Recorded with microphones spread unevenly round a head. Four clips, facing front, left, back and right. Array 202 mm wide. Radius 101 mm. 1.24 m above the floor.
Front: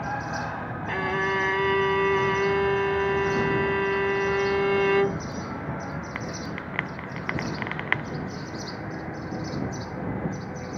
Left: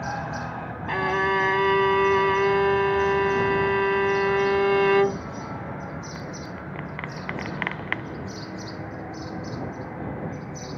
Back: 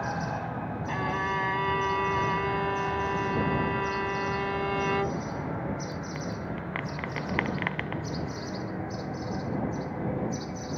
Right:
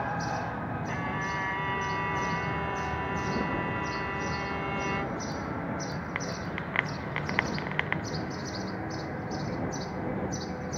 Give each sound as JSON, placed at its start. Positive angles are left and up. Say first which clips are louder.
{"t": 0.9, "sound": "a violin", "louder": "left 14 dB, front 4 dB", "azimuth_deg": 70}